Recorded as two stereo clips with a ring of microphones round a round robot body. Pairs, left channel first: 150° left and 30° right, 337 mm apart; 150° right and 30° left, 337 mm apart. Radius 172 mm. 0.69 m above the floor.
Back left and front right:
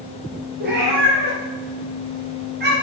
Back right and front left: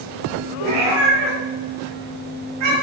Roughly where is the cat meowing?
Ahead left.